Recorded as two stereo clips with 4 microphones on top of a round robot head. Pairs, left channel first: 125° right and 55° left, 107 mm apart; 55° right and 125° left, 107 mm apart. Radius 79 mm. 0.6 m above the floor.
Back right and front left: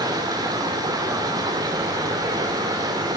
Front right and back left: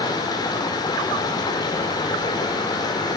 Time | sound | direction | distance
0.0 | running water | straight ahead | 1.8 m